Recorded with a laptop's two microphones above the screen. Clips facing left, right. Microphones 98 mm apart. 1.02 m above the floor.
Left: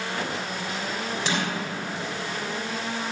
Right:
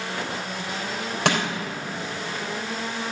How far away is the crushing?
About 3.5 m.